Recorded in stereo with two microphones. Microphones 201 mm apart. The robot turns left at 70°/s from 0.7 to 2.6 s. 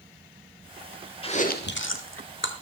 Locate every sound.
1.2 s chewing: 25° left (ahead or behind), 1.3 m; by 2.5 s 60° left (ahead or behind), 1.3 m